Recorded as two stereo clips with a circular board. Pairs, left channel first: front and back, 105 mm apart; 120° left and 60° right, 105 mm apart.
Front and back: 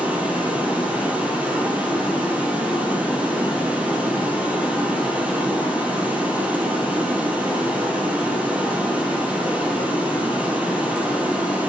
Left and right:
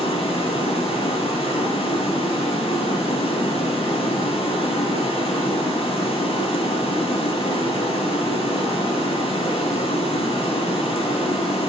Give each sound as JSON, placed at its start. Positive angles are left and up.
{"t": 0.0, "sound": "running water", "azimuth_deg": 105, "distance_m": 3.5}